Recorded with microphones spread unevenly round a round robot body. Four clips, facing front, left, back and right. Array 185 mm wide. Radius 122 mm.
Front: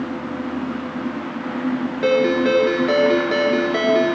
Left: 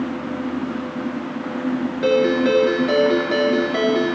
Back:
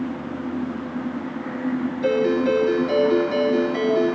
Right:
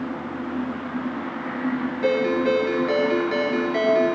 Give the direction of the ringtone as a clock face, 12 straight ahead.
11 o'clock.